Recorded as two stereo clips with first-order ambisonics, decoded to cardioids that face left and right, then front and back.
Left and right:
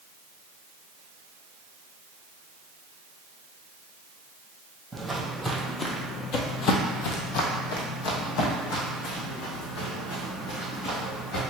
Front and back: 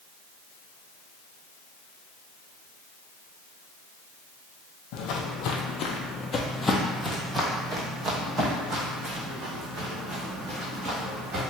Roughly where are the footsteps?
Ahead.